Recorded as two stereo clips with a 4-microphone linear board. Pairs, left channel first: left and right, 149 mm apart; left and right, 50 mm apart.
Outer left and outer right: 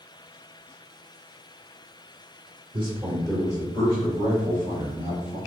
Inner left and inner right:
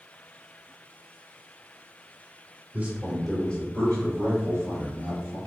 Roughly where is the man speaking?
Right.